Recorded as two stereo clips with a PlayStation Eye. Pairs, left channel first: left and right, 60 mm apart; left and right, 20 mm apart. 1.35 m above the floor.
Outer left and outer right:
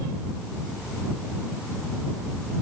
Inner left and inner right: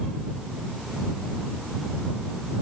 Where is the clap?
No clap in this recording.